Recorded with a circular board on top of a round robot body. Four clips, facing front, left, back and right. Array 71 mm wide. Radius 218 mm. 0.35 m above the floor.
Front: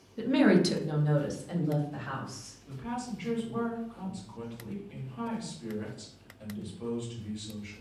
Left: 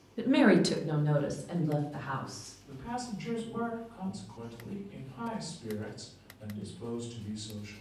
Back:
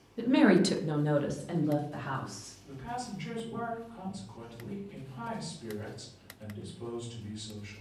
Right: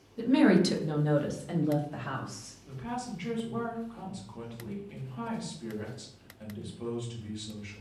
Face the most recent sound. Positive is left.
turn(degrees=-75)